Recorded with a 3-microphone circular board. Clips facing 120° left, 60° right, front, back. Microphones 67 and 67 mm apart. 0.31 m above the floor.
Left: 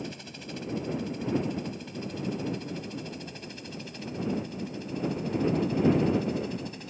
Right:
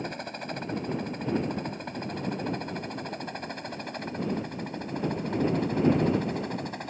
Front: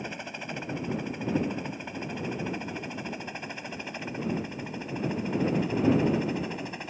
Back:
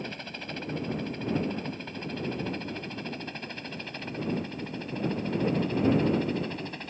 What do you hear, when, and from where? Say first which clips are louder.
0.0 s a helicopter: right 5 dB, front 1 dB; 70° right; by 6.9 s 75° right